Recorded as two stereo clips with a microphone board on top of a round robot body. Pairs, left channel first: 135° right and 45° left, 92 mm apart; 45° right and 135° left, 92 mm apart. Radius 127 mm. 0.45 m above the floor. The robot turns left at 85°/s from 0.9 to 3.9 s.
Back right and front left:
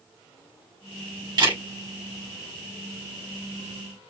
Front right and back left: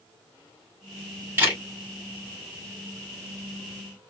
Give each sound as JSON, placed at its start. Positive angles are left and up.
{"t": 1.4, "sound": "a camera shutter", "azimuth_deg": 70, "distance_m": 2.5}